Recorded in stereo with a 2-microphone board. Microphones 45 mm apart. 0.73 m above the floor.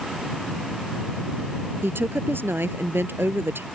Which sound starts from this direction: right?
A woman speaking, at 1.8 s.